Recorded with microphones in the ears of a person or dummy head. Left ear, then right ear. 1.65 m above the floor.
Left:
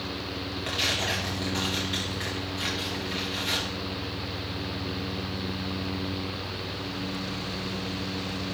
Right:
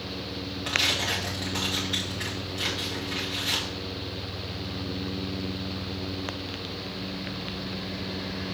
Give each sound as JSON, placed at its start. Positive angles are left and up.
{"t": 0.7, "sound": "tearing paper", "side_deg": -5, "distance_m": 1.9}